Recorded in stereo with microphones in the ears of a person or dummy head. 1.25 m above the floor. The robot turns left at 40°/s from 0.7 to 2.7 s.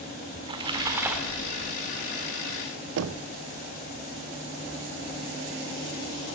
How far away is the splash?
About 1.8 m.